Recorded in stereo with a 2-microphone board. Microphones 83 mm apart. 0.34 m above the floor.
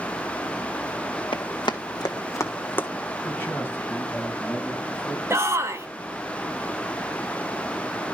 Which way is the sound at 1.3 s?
70° left (ahead or behind).